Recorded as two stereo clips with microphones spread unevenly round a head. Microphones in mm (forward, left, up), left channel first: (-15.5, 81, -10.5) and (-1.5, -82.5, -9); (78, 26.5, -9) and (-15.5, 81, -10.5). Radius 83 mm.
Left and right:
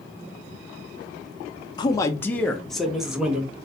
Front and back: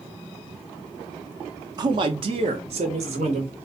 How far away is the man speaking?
About 0.6 m.